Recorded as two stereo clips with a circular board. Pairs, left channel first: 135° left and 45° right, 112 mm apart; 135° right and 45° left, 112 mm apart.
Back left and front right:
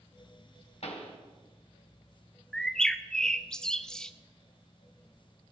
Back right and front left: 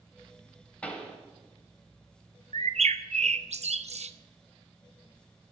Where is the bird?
50° left, 0.6 m.